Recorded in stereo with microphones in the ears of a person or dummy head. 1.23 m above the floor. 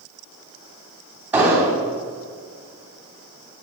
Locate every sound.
1.3 s an explosion: 10° right (ahead or behind), 3 m